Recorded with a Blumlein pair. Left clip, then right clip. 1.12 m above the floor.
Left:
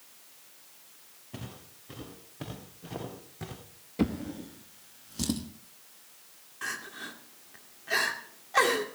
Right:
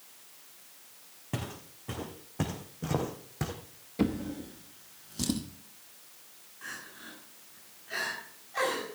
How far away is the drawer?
About 1.0 m.